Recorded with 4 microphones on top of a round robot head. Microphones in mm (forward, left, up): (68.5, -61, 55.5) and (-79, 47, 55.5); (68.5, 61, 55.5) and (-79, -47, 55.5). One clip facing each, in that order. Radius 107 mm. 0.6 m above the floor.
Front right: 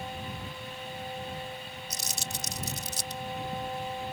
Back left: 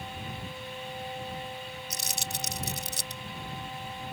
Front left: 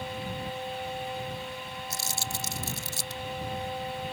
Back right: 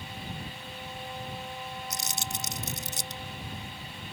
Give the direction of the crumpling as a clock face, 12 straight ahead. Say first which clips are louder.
Back left 1 dB, front left 1 dB; 7 o'clock.